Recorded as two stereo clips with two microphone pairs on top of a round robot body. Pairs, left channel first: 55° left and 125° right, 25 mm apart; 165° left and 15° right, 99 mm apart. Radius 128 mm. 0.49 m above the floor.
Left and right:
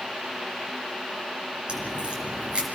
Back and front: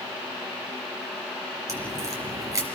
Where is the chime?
I don't hear a chime.